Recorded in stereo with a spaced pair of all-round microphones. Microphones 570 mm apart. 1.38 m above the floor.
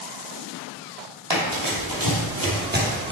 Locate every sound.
1.3 s running footsteps: 50° right (ahead or behind), 3 m; by 3.1 s 5° right (ahead or behind), 2.5 m